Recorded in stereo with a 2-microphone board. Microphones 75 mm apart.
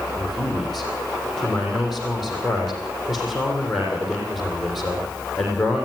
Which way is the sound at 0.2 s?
Centre (ahead or behind).